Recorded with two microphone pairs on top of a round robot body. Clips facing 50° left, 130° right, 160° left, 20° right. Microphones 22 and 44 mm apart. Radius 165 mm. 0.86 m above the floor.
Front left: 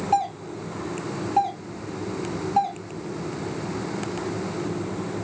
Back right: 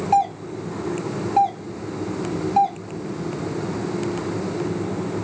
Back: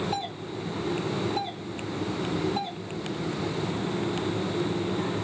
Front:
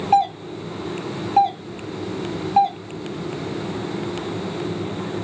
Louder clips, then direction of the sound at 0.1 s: Back right 5 dB, front 14 dB; 50° right.